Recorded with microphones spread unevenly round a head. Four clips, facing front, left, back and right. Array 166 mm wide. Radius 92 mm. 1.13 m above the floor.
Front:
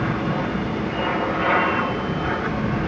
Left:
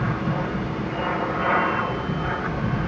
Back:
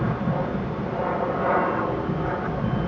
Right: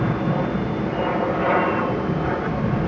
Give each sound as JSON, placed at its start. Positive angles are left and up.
{"t": 0.0, "sound": "an aircraft", "azimuth_deg": -105}